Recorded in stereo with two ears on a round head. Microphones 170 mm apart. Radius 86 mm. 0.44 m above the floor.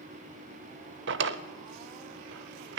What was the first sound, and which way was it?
A drawer, 65° right (ahead or behind).